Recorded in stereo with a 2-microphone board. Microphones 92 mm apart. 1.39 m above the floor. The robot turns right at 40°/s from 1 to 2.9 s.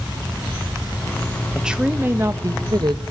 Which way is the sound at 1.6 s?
175° right.